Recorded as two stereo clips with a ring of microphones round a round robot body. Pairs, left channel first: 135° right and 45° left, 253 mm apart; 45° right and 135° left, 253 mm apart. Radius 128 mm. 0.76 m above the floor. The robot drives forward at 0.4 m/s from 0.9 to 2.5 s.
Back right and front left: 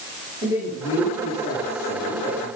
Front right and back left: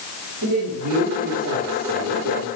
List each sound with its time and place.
0.4 s a man speaking: 120° left, 7 m; by 2.5 s 125° left, 7.5 m